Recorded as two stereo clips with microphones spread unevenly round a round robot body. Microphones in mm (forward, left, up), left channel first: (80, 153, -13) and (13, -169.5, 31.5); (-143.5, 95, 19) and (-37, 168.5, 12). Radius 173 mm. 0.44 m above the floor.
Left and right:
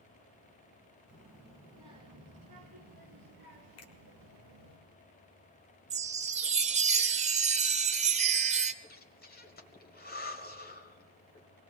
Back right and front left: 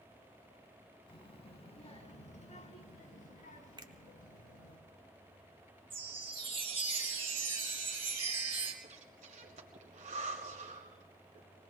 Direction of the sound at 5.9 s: 30° right.